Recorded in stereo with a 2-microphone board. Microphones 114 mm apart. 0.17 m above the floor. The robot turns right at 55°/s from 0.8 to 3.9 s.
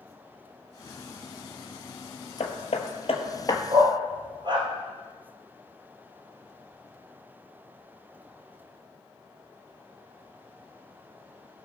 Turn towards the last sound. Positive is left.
turn(degrees=-45)  # may be behind; listen again after turning